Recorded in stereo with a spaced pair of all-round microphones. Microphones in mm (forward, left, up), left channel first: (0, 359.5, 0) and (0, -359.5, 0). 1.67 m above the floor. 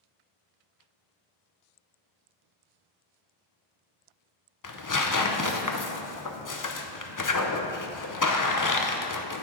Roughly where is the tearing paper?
Left.